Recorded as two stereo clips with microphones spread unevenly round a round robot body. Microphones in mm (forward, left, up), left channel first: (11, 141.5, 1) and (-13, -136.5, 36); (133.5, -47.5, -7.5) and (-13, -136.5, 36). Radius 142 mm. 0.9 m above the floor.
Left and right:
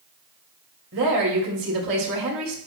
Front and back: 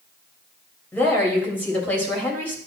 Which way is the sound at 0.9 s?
50° right.